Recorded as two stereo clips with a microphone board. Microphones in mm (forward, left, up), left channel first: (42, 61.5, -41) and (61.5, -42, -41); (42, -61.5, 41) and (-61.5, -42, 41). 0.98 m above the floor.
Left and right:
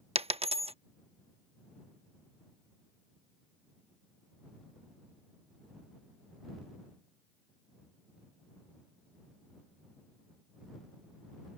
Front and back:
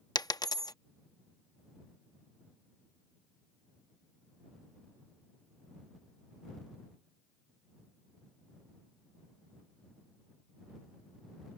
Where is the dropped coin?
60° right.